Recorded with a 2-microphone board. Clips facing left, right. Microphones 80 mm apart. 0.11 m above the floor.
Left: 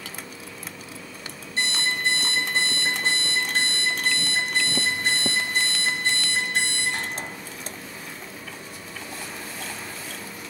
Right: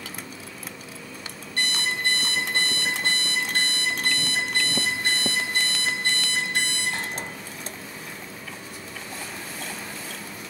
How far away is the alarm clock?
About 2.0 m.